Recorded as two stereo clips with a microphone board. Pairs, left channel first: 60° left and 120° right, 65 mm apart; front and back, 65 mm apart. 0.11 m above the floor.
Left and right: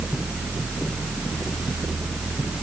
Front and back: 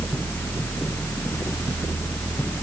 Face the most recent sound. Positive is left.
No sound to turn to.